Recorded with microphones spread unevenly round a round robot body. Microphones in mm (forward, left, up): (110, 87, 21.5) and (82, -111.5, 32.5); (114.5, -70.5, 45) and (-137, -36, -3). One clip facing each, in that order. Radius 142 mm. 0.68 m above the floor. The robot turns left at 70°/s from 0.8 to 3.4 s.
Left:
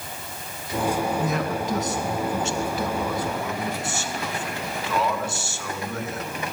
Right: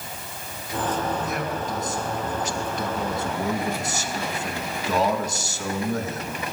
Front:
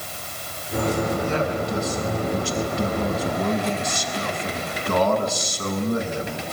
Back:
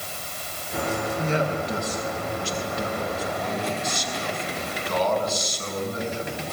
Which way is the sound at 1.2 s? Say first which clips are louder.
Left 3 dB, front 2 dB; 110° left.